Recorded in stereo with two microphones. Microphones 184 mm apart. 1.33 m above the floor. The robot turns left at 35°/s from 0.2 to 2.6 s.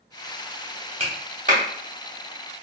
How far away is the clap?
About 1.0 m.